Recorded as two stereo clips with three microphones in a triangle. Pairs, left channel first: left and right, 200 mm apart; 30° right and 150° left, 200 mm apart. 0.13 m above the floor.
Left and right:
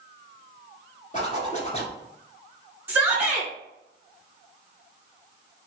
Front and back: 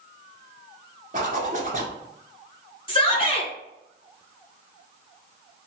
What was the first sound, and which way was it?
A zipper, 125° left.